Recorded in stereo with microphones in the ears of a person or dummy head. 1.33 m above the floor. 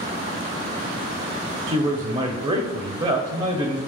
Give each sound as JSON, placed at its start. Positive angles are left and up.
{"t": 1.7, "sound": "a man speaking", "side_deg": -20, "distance_m": 0.6}